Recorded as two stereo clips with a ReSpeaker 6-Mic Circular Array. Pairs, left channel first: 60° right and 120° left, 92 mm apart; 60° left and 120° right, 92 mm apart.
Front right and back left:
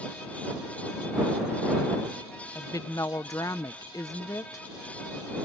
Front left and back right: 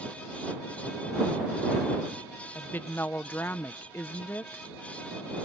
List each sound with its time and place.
2.5 s a woman speaking: 10° right